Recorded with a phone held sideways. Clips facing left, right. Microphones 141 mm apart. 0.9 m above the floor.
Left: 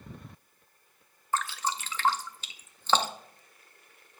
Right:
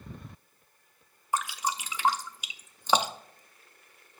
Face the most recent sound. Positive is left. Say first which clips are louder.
# even
turn(degrees=-10)  # may be behind; listen again after turning